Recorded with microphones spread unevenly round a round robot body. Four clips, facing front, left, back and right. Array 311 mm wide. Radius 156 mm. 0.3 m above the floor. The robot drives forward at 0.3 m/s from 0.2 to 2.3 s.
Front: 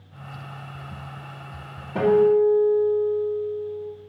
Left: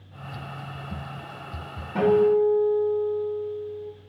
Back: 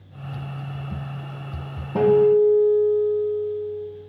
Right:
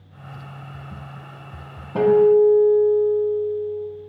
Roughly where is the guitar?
Behind.